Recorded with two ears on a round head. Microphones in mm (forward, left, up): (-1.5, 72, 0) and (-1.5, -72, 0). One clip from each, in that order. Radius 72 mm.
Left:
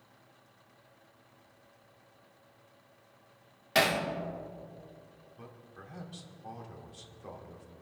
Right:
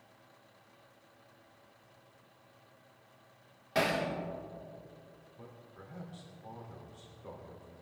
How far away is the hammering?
About 2.5 m.